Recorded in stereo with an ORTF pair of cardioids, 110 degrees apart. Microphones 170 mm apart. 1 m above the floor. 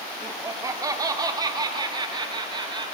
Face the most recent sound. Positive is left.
turn(degrees=-25)